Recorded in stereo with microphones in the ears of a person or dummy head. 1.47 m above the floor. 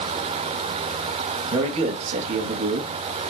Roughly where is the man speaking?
Right.